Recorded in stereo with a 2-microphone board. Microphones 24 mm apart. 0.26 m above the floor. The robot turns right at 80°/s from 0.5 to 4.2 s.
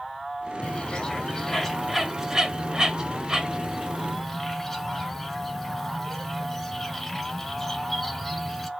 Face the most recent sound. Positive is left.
turn(degrees=10)  # may be behind; listen again after turning